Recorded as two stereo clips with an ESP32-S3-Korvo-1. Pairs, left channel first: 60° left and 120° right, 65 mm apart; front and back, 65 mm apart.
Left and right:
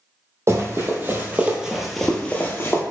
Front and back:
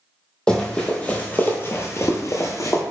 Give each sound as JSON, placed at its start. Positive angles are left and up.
{"t": 0.5, "sound": "running footsteps", "azimuth_deg": -75, "distance_m": 1.2}